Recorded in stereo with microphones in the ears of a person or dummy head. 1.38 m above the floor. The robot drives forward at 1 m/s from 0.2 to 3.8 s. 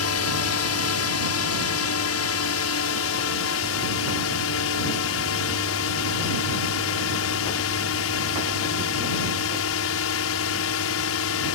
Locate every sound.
0.0 s a drone: 70° left (ahead or behind); by 11.6 s 65° left (ahead or behind)